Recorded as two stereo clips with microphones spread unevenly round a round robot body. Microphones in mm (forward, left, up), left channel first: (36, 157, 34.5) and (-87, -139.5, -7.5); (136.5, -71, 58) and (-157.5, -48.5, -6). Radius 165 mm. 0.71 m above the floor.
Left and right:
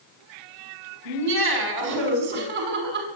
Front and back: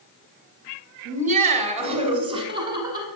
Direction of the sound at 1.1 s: 125° right.